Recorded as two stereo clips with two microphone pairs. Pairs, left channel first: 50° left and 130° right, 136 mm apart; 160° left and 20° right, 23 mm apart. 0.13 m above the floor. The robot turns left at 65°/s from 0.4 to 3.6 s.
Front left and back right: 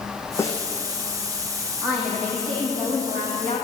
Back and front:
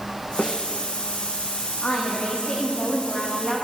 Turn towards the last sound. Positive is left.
turn(degrees=35)